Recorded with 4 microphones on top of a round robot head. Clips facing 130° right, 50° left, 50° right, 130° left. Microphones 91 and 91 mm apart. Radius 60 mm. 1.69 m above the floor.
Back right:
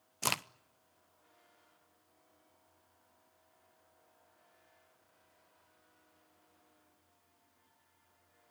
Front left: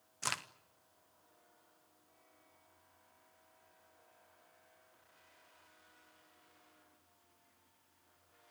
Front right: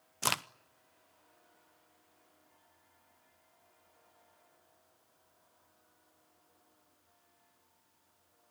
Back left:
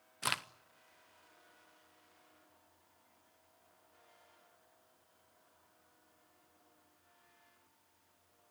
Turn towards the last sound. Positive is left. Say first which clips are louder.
# back right 5 dB, front right 4 dB
turn(degrees=-105)